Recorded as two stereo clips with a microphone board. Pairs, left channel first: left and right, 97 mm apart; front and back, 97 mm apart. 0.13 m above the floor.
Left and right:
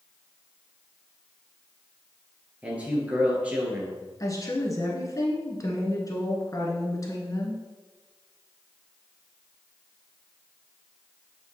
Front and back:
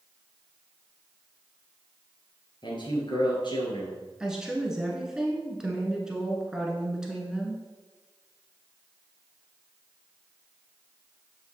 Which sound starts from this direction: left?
A woman speaking, at 4.2 s.